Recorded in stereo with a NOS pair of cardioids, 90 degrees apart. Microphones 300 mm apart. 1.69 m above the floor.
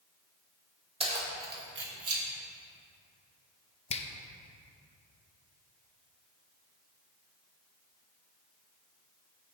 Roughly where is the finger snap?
Ahead.